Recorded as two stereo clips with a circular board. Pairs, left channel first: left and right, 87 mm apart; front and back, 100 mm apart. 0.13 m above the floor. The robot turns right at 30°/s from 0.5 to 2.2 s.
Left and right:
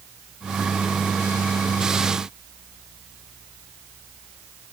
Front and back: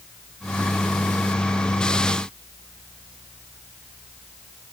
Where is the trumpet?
No trumpet in this recording.